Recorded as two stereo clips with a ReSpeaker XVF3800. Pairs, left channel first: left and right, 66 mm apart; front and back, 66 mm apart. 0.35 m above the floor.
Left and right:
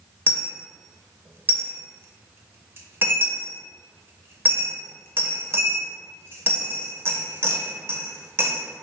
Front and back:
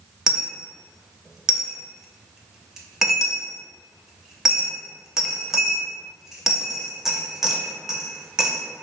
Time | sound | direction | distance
0.3 | a dropped coin | 100° right | 0.6 m